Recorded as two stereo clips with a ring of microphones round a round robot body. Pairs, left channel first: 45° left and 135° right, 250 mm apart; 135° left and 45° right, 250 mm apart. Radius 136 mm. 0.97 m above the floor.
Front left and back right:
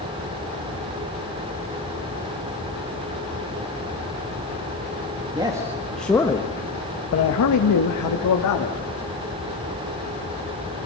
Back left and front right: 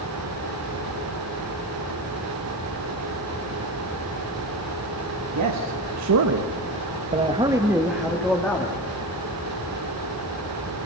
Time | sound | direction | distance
5.3 | a man speaking | 60° right | 1.7 m